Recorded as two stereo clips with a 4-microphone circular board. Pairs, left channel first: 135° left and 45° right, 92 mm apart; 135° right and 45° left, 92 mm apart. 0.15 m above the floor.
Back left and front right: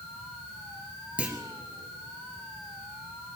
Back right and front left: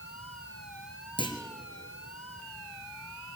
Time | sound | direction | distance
1.2 | a clunk | 120° right | 1.5 m